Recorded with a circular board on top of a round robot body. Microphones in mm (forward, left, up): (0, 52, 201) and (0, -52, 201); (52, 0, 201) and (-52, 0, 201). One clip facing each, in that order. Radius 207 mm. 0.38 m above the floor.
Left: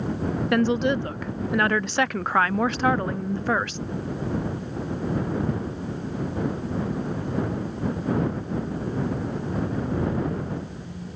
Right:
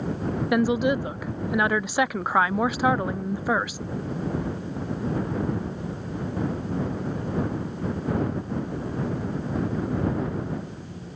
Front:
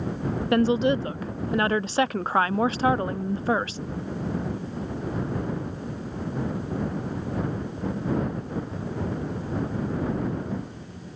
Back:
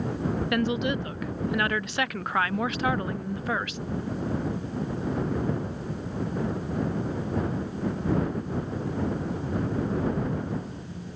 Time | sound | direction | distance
0.5 | a woman speaking | 15° right | ?